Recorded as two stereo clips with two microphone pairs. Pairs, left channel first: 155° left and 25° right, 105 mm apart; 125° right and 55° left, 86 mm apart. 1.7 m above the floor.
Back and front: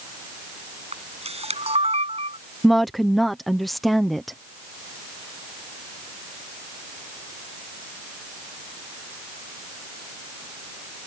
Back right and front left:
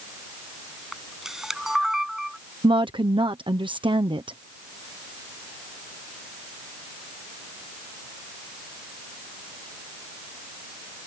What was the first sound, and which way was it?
A camera shutter, 30° right.